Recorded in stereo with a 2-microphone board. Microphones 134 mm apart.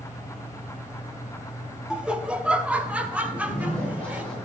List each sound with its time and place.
1.9 s laughter: 5° right (ahead or behind), 0.9 m; by 4.2 s 15° right (ahead or behind), 2 m
3.2 s a zipper: 10° left (ahead or behind), 6 m